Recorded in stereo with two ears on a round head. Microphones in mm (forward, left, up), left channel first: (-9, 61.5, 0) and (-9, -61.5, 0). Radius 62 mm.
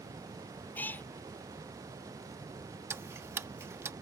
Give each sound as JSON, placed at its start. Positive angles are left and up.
{"t": 0.8, "sound": "a cat meowing", "side_deg": 15}
{"t": 2.9, "sound": "ticking", "side_deg": -20}